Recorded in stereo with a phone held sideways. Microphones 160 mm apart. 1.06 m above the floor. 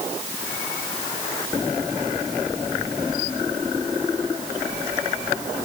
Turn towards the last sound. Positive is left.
No sound to turn to.